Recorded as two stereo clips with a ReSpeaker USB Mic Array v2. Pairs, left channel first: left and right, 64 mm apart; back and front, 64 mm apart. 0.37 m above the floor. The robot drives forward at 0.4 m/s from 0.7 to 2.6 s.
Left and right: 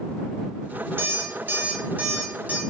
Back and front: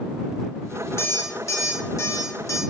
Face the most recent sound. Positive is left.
turn(degrees=-155)